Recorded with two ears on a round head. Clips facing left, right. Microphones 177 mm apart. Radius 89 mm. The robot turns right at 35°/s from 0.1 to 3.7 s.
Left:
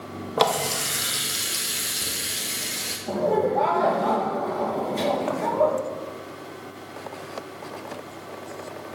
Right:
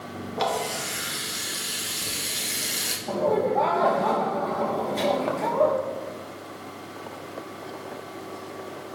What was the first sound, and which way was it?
A running tap, 105° left.